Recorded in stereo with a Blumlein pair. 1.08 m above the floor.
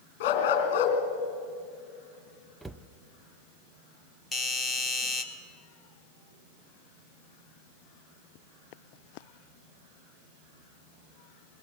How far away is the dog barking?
About 4 m.